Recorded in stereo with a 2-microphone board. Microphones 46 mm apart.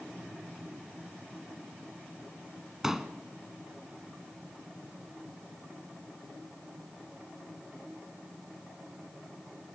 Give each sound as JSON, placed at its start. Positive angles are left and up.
{"t": 2.8, "sound": "a pop", "side_deg": -10, "distance_m": 1.6}